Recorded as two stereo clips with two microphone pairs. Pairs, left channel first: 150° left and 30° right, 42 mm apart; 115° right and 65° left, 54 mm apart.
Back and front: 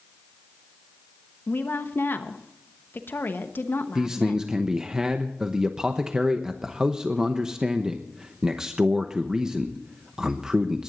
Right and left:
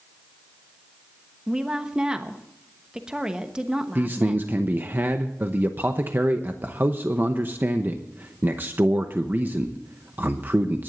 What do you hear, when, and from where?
1.5 s a woman speaking: 135° left, 1.1 m
4.0 s a man speaking: 40° left, 0.9 m